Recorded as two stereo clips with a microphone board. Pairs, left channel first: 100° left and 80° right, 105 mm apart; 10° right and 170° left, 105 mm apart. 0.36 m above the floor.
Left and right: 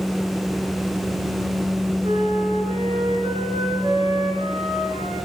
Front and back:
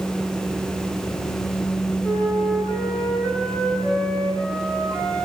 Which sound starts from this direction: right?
A flute, at 2.0 s.